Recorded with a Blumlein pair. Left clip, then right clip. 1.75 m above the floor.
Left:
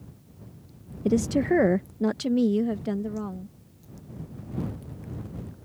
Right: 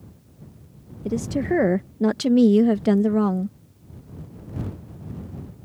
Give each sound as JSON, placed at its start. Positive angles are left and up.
{"t": 1.1, "sound": "a woman speaking", "azimuth_deg": 15}